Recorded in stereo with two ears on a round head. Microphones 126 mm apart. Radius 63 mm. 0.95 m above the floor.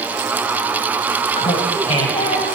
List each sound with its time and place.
1.4 s laughter: 45° left (ahead or behind), 5.5 m; by 2.6 s 40° left (ahead or behind), 6 m